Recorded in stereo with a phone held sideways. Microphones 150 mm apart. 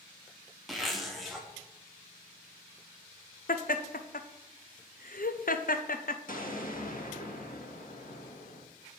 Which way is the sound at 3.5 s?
70° left (ahead or behind).